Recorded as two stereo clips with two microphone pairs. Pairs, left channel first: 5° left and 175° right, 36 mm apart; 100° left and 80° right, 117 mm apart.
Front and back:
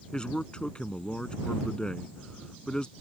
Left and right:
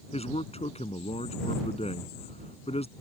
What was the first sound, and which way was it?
A man speaking, 70° left.